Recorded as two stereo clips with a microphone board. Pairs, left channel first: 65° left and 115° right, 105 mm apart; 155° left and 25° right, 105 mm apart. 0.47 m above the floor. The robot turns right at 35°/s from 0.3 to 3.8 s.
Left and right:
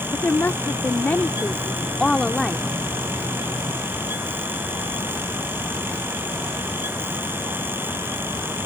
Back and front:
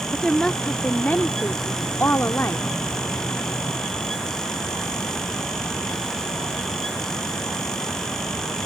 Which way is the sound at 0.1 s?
80° left.